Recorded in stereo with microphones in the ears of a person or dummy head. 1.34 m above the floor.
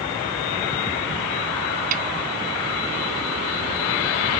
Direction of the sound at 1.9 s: 50° right (ahead or behind).